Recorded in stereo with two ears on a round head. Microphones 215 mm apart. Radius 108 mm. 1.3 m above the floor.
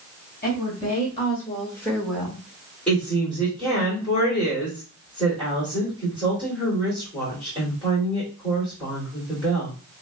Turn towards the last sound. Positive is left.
turn(degrees=5)  # may be behind; listen again after turning